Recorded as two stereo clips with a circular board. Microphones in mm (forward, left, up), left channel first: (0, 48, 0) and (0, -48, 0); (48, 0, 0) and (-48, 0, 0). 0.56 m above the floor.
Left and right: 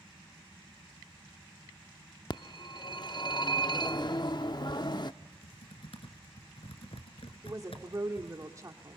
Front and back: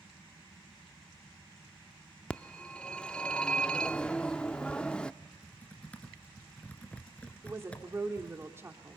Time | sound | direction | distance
2.3 | a phone ringing | 75° left | 0.5 m
5.2 | typing on a keyboard | 75° left | 1.8 m
7.4 | a woman speaking | 125° right | 1.7 m